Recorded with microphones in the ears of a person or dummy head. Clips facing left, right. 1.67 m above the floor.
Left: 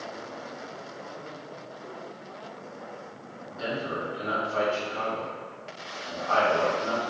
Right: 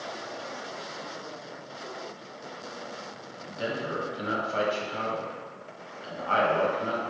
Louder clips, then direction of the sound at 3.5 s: Even; 40° right (ahead or behind).